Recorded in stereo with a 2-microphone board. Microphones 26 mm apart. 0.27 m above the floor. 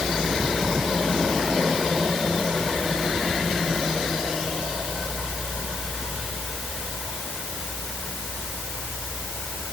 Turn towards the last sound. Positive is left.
No sound to turn to.